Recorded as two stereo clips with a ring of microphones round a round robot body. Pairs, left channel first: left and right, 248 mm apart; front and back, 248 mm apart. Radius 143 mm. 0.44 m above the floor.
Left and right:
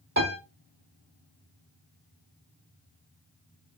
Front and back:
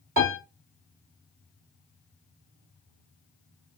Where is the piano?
130° right, 1.9 m.